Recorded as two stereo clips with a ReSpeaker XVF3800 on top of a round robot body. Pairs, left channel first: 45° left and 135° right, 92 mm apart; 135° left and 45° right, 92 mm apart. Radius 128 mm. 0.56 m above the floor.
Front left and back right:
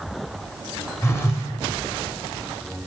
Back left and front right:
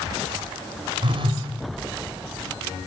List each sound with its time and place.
1.0 s a phone buzzing: 15° right, 1.5 m